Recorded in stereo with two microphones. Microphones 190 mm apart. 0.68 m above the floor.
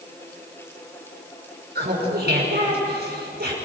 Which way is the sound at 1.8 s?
55° right (ahead or behind).